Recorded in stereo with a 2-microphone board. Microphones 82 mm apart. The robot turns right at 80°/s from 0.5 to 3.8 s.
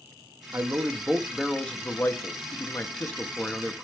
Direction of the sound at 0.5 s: 65° right.